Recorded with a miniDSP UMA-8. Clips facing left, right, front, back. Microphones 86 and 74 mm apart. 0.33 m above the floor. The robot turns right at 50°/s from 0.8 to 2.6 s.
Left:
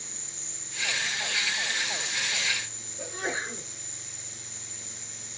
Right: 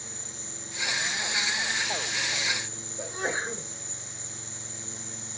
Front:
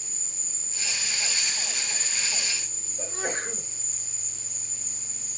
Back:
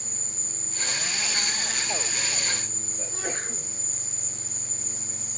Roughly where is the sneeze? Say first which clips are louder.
Right 2 dB, front 3 dB; ahead right.